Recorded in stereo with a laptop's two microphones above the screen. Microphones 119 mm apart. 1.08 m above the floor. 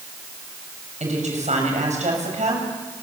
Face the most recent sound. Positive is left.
turn(degrees=-80)